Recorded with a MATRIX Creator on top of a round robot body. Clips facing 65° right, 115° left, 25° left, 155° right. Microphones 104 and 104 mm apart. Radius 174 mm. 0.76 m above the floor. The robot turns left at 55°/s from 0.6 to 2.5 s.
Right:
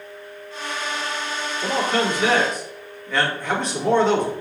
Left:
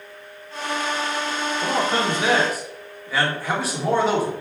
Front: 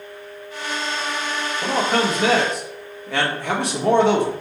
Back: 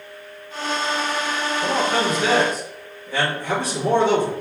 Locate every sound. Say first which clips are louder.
1.6 s a man speaking: right 1 dB, front 1 dB; 75° left, 1.5 m; by 4.3 s 30° left, 1.5 m